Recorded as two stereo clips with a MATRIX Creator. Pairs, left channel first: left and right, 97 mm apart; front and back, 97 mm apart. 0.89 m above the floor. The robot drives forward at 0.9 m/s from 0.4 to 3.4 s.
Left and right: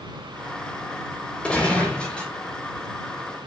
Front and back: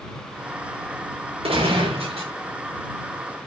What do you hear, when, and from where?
1.4 s a gunshot: 170° left, 4.5 m